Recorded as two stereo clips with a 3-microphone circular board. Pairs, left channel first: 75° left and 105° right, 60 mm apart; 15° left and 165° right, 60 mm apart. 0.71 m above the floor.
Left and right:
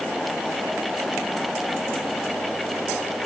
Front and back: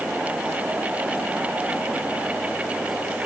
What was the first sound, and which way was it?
Only background noise.